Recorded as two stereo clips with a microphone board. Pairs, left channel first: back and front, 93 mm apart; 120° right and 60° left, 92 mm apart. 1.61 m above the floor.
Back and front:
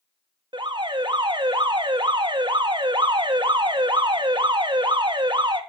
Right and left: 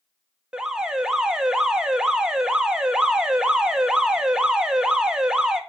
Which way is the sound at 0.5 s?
20° right.